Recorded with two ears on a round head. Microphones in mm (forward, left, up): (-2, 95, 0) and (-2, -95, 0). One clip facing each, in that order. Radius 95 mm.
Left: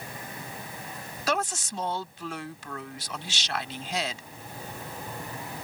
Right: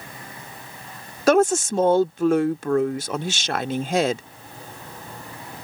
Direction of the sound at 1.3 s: 40° right (ahead or behind).